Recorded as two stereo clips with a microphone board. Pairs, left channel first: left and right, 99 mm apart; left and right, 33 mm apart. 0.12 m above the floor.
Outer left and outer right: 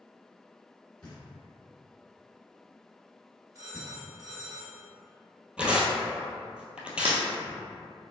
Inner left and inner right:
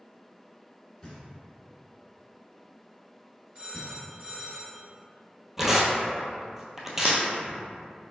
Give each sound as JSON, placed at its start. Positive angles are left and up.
{"t": 1.0, "sound": "knocking", "side_deg": 10, "distance_m": 1.5}
{"t": 3.5, "sound": "a phone ringing", "side_deg": -35, "distance_m": 1.2}
{"t": 5.6, "sound": "tearing paper", "side_deg": -10, "distance_m": 0.7}
{"t": 7.0, "sound": "breaking glass", "side_deg": -75, "distance_m": 1.4}